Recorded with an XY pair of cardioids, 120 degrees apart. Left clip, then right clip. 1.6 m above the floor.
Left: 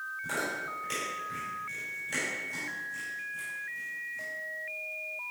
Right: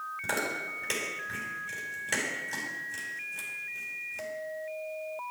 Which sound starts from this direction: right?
Chewing, at 0.2 s.